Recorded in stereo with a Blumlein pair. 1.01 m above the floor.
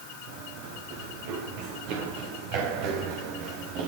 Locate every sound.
0.3 s running footsteps: 45° right, 8 m; by 3.9 s 40° right, 5.5 m